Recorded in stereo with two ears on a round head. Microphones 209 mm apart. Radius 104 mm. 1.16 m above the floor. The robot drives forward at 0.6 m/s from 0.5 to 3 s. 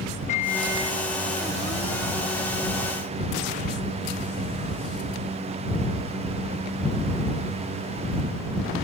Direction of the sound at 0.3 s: 30° left (ahead or behind).